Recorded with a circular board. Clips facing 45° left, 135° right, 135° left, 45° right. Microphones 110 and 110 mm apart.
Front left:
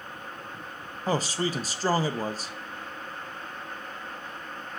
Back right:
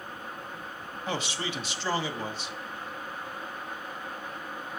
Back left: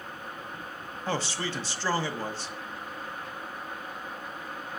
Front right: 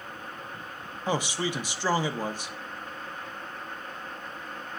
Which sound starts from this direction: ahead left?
A man speaking, at 1.1 s.